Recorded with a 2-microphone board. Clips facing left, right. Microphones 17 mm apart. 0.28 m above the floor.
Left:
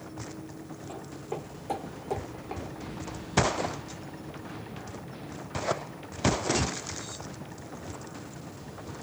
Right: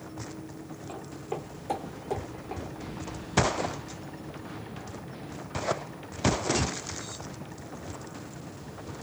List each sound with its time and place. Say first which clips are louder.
0.9 s footsteps: right 1 dB; 25° right (ahead or behind), 1.4 m; by 2.6 s 30° left (ahead or behind), 0.7 m